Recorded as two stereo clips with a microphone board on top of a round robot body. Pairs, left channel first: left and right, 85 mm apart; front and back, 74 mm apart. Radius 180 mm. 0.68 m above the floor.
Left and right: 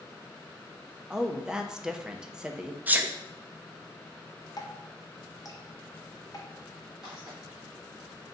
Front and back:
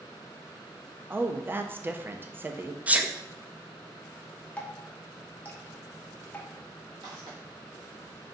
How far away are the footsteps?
About 1.3 m.